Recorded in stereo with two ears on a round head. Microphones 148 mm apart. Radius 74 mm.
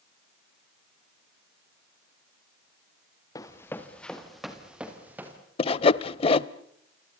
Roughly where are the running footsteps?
Left.